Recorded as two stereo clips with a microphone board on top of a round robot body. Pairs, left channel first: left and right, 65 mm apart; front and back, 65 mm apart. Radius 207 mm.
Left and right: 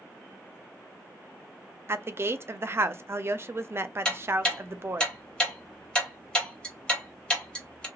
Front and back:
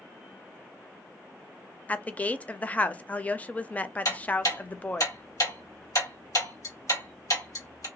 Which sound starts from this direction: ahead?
Ticking, at 4.0 s.